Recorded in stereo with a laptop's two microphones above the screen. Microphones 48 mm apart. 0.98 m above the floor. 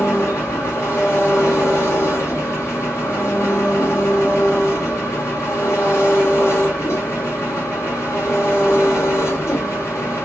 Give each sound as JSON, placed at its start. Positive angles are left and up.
{"t": 0.0, "sound": "an engine running", "side_deg": 70, "distance_m": 1.5}